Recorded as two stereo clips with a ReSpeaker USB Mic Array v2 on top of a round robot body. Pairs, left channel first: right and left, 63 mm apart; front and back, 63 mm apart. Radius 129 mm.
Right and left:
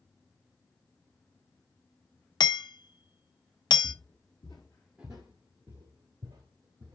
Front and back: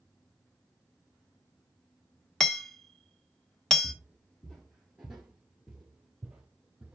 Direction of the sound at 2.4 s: 85° right.